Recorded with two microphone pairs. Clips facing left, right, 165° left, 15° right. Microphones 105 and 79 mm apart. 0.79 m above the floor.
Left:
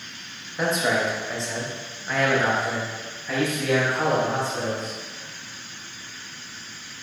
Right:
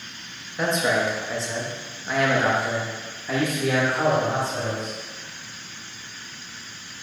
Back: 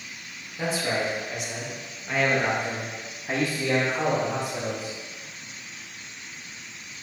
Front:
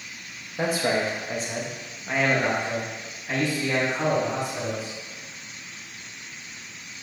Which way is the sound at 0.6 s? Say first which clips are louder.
Right 1 dB, front 3 dB; 5° left.